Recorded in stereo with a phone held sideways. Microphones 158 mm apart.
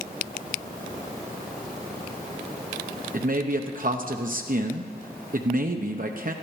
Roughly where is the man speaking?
Right.